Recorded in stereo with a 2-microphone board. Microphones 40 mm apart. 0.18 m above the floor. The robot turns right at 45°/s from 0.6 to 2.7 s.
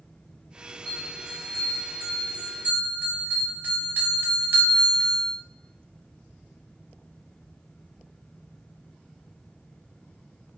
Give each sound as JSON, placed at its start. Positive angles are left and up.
{"t": 0.8, "sound": "a bell", "side_deg": -5, "distance_m": 1.7}